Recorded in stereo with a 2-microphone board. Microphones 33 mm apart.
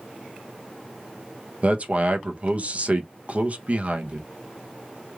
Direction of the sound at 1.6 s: 45° right (ahead or behind).